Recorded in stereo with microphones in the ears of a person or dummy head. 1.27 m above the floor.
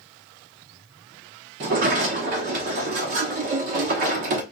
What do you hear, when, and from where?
1.6 s a sliding door: 40° right (ahead or behind), 0.9 m